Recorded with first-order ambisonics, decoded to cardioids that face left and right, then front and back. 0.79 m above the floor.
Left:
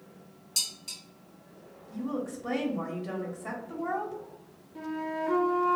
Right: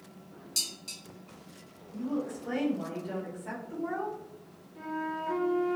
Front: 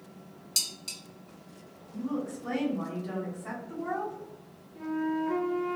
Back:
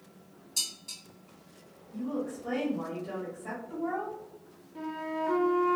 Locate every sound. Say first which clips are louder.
0.6 s dishes clattering: left 2 dB, front 2 dB; straight ahead, 1.0 m
1.9 s a woman speaking: even, even; 85° left, 0.8 m
4.8 s a flute: left 1 dB, front 2 dB; 140° left, 0.5 m